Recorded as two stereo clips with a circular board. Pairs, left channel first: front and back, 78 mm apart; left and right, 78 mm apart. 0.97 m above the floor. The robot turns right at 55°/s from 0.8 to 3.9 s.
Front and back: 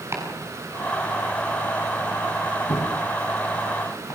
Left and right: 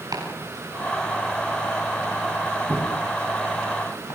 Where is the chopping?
125° right, 6.5 m; by 4.2 s 45° left, 6.5 m.